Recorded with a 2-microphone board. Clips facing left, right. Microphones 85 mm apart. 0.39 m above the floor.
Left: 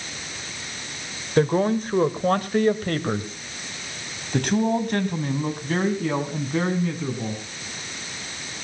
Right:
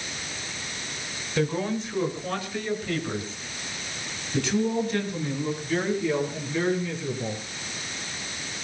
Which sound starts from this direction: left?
A man speaking, at 1.4 s.